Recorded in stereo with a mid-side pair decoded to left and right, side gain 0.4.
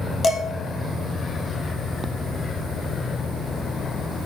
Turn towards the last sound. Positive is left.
turn(degrees=55)